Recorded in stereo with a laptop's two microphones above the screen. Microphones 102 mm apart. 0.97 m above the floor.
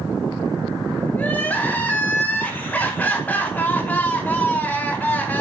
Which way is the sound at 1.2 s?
15° left (ahead or behind).